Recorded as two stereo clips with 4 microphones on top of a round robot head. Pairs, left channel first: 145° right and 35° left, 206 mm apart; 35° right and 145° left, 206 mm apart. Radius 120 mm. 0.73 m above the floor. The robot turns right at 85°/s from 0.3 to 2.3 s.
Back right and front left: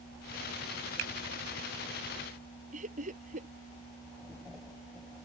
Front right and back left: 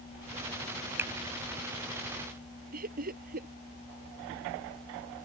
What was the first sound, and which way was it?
A finger snap, 60° left.